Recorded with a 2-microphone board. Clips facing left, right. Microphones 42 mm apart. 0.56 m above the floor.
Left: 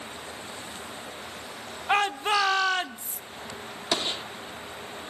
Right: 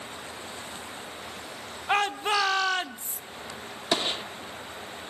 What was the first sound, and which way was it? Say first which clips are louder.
A shout: left 1 dB; 10° left (ahead or behind).